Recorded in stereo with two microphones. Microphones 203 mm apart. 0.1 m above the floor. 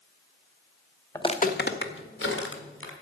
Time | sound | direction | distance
1.1 | footsteps | 15° left (ahead or behind) | 0.7 m